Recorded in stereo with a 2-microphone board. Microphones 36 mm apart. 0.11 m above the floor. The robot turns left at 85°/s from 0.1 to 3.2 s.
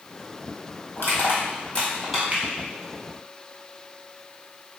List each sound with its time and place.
1.0 s crushing: 65° left (ahead or behind), 1.6 m; by 2.2 s 10° right (ahead or behind), 1.6 m
2.3 s a finger snap: 40° right (ahead or behind), 1.2 m; by 2.4 s 35° right (ahead or behind), 1.2 m